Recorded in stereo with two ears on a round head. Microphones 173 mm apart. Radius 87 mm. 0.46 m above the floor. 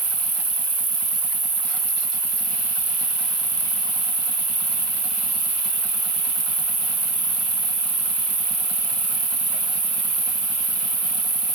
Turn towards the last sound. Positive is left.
turn(degrees=-20)  # may be behind; listen again after turning